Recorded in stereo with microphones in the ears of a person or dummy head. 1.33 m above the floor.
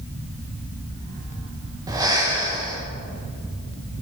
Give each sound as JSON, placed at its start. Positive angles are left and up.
{"t": 1.9, "sound": "breathing", "side_deg": -15, "distance_m": 0.9}